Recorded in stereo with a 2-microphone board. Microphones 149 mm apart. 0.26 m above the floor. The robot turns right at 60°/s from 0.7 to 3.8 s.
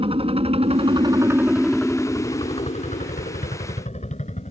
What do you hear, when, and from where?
0.0 s a helicopter: 40° right (ahead or behind); by 4.5 s 55° left (ahead or behind)